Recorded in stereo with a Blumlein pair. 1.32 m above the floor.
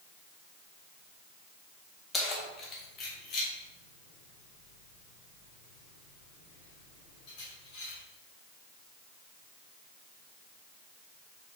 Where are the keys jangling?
20° left, 1.6 m; by 8.0 s 40° left, 5.5 m.